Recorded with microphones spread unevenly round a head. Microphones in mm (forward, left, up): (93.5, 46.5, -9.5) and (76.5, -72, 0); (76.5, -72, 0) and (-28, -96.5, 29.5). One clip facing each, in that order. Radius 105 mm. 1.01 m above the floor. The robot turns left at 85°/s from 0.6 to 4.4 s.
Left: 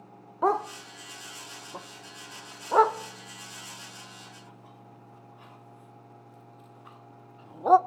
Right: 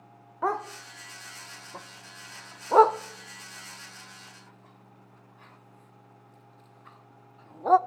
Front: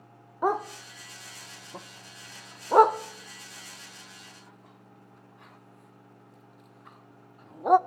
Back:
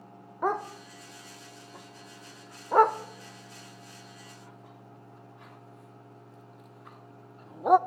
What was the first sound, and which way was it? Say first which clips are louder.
A dog barking: left 4 dB, front 2 dB; 120° left.